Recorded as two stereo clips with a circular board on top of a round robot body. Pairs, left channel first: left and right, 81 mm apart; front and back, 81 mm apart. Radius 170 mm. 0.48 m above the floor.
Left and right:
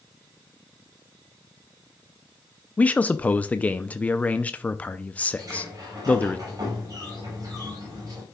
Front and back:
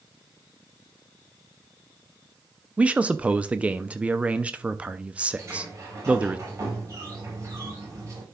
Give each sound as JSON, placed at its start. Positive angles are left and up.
{"t": 2.8, "sound": "a man speaking", "azimuth_deg": 130, "distance_m": 0.7}
{"t": 5.4, "sound": "a sliding door", "azimuth_deg": -130, "distance_m": 5.0}